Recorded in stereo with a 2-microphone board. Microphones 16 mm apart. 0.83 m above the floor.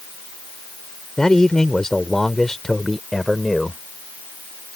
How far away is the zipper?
No zipper in this recording.